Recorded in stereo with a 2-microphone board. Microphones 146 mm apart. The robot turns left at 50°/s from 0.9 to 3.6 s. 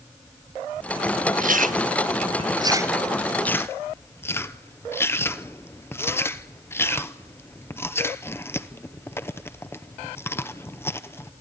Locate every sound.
1.4 s chewing: 60° right (ahead or behind), 0.8 m; by 11.3 s 15° left (ahead or behind), 0.8 m